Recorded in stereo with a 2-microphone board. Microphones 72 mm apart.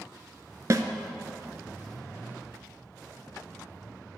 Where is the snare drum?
50° right (ahead or behind), 0.6 m.